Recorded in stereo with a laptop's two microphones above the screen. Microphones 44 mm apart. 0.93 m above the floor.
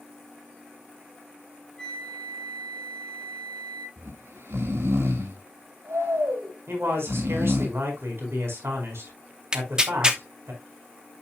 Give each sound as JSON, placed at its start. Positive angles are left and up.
{"t": 1.8, "sound": "a flute", "side_deg": 15, "distance_m": 2.5}
{"t": 4.0, "sound": "snoring", "side_deg": -80, "distance_m": 1.8}
{"t": 6.7, "sound": "a man speaking", "side_deg": -70, "distance_m": 4.5}
{"t": 9.5, "sound": "tearing paper", "side_deg": -20, "distance_m": 0.9}